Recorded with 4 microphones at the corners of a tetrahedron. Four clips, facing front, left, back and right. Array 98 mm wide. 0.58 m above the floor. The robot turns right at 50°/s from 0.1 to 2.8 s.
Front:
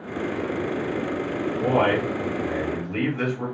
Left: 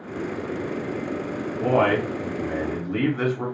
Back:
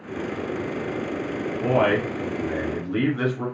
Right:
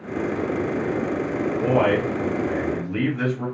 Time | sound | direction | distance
1.6 | a man speaking | 55° left | 1.5 m